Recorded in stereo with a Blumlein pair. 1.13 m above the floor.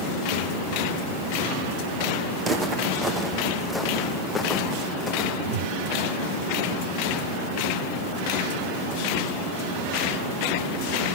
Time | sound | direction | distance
2.4 | footsteps | 20° right | 3.5 m
5.3 | a whoosh | 45° right | 1.1 m